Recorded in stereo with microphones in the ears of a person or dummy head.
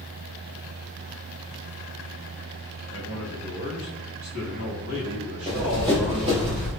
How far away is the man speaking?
About 1.7 m.